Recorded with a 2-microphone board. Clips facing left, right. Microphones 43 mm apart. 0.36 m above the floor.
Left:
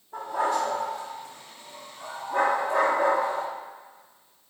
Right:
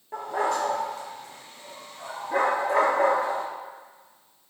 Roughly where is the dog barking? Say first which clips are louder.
Even; right.